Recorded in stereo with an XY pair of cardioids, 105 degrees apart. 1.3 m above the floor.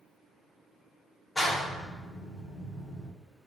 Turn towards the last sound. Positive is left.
turn(degrees=20)